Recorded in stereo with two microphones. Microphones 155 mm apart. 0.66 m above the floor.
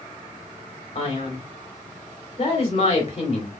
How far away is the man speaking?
About 2 m.